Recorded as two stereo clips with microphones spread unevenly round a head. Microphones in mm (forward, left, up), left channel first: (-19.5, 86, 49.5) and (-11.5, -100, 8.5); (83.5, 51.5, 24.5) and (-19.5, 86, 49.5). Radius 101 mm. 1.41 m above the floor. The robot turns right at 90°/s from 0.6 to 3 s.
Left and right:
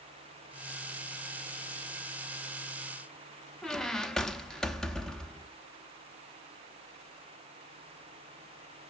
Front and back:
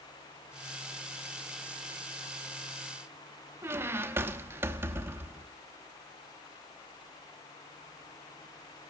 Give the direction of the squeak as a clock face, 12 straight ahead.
7 o'clock.